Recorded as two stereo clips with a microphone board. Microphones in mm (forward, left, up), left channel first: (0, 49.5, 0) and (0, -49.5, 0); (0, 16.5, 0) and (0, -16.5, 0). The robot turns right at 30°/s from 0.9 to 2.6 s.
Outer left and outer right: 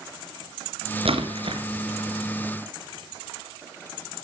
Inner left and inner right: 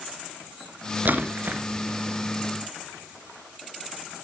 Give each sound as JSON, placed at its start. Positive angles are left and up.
{"t": 1.1, "sound": "a splash", "side_deg": -80, "distance_m": 2.5}